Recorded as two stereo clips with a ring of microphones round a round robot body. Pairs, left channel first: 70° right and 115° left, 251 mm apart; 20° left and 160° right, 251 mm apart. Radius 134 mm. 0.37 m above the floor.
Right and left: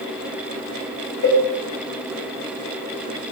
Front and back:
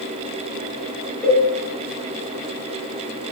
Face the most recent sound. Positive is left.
turn(degrees=-65)